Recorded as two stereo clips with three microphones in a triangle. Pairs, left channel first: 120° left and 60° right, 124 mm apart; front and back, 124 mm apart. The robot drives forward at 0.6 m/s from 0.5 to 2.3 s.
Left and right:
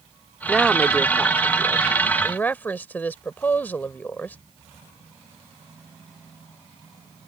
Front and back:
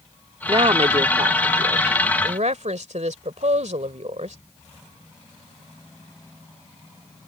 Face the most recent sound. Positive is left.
turn(degrees=-165)